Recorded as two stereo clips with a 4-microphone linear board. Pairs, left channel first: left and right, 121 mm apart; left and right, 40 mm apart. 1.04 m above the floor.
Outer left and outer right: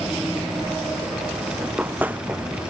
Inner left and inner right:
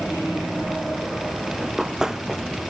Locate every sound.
1.6 s running footsteps: 15° right (ahead or behind)